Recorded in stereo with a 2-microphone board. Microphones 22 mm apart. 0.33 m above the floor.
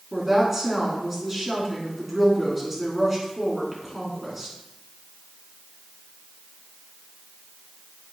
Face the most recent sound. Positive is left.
turn(degrees=-10)  # may be behind; listen again after turning